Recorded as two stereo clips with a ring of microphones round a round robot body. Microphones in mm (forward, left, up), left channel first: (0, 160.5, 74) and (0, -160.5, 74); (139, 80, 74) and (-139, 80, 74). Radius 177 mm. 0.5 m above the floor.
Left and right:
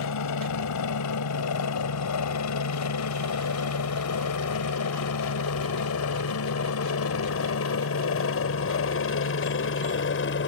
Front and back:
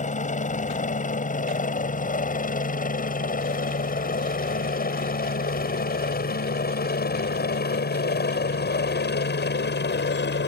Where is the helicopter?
60° left; by 10.5 s 45° left.